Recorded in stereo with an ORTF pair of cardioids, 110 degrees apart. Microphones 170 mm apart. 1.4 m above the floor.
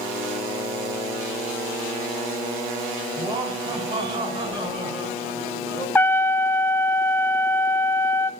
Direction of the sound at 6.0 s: 10° left.